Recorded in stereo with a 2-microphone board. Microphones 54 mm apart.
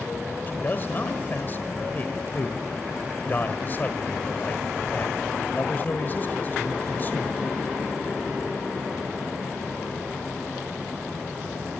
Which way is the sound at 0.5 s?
35° left (ahead or behind).